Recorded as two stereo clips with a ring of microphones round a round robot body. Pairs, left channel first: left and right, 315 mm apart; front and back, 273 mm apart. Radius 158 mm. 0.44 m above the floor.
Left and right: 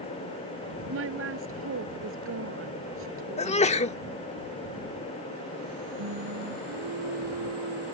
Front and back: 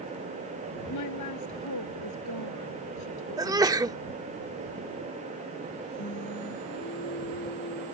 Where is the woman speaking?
40° right.